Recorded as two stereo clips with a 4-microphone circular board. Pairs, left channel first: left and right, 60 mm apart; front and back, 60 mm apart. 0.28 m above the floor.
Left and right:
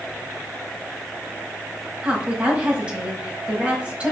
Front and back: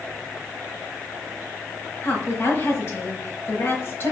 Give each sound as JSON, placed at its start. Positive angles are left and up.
{"t": 2.0, "sound": "a woman speaking", "azimuth_deg": -25, "distance_m": 1.3}